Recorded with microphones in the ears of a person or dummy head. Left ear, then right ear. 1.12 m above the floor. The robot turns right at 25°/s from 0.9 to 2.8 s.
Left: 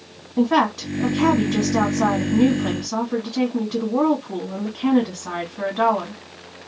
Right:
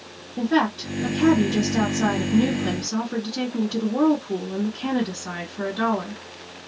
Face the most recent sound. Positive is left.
turn(degrees=165)